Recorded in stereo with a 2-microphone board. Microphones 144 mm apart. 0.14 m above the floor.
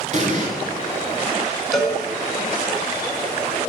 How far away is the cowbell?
About 1.1 m.